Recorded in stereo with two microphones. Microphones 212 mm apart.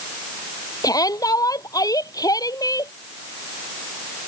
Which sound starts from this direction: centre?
A shout, at 0.8 s.